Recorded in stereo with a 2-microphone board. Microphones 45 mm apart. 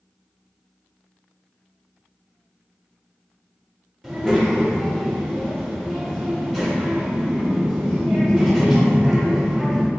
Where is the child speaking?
Centre (ahead or behind), 0.7 m.